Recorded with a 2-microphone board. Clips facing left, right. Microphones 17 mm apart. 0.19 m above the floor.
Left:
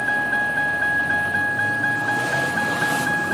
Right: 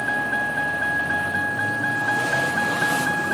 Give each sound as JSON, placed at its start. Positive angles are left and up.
{"t": 0.0, "sound": "a vehicle", "side_deg": 20}